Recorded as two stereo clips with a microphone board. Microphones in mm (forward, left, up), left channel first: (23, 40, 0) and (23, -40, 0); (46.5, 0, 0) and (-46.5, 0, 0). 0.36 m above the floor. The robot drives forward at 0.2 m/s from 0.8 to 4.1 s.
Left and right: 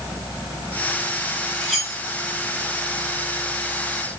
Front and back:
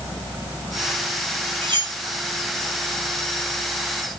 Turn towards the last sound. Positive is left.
turn(degrees=180)